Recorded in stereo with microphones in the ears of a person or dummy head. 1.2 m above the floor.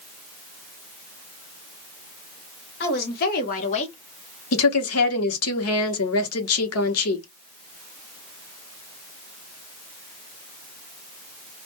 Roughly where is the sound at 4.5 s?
Left.